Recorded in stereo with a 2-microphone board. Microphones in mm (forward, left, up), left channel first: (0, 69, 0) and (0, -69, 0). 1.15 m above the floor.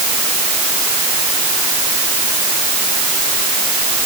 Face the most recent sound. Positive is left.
No sound to turn to.